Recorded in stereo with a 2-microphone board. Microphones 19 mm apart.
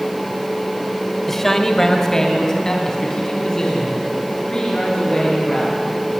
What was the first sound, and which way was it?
A man speaking, 10° left (ahead or behind).